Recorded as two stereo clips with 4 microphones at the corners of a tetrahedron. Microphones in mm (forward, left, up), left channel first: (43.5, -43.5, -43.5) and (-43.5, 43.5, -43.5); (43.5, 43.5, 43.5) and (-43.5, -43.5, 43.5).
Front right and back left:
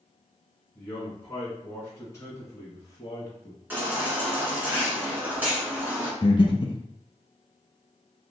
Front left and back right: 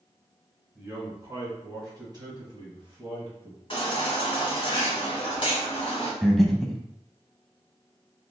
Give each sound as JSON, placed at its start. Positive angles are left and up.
{"t": 0.8, "sound": "a man speaking", "azimuth_deg": -90, "distance_m": 1.3}
{"t": 3.7, "sound": "a baby crying", "azimuth_deg": 65, "distance_m": 1.6}
{"t": 6.2, "sound": "breathing", "azimuth_deg": -40, "distance_m": 0.6}